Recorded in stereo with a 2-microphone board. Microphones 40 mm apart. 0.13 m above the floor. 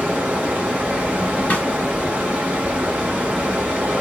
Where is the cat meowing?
I don't hear a cat meowing.